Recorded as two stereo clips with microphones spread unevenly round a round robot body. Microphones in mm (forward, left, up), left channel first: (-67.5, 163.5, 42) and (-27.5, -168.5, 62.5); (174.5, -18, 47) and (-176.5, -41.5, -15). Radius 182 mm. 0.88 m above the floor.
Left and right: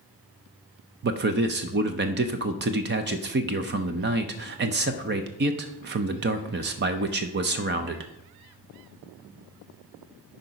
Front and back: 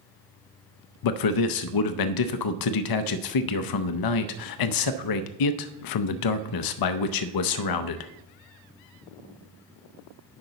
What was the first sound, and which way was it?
A man speaking, 25° right.